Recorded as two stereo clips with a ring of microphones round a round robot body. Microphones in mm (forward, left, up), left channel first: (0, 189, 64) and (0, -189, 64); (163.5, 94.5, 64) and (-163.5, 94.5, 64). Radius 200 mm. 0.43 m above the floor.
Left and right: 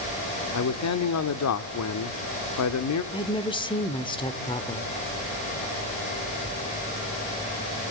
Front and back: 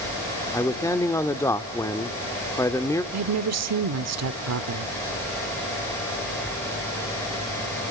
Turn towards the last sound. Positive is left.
turn(degrees=165)